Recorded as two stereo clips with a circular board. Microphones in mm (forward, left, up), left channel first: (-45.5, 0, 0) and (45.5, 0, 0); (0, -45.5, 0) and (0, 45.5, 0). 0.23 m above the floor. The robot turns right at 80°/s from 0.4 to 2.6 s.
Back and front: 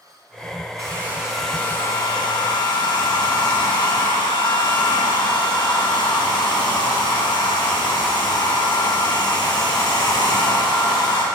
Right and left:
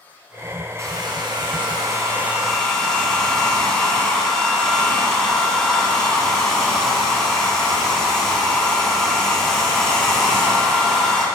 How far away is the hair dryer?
About 3 m.